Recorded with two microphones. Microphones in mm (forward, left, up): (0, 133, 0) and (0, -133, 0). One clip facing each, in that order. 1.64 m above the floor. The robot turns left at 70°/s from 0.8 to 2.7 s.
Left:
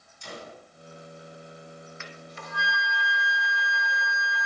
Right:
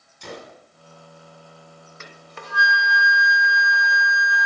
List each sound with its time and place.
0.2 s a gunshot: 70° right (ahead or behind), 5 m
2.0 s a flute: 40° right, 2.5 m; by 4.5 s 90° right, 2.5 m